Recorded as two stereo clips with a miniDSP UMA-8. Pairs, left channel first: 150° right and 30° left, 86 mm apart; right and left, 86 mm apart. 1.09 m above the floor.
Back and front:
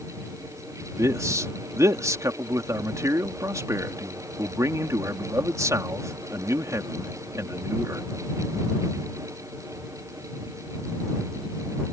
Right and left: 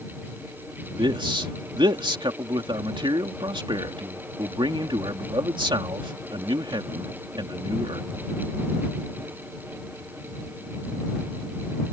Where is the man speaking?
80° left.